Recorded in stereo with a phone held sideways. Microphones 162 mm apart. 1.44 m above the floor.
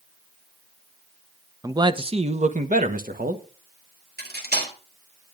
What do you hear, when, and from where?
1.6 s a man speaking: 20° right (ahead or behind), 0.7 m; by 3.4 s 60° right (ahead or behind), 1.5 m
4.2 s cutlery clinking: 70° right (ahead or behind), 2.5 m